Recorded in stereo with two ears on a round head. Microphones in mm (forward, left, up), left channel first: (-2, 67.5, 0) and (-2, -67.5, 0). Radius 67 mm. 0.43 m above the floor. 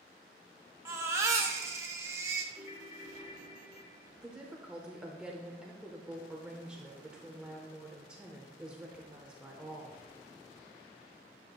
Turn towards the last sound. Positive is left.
turn(degrees=-5)  # may be behind; listen again after turning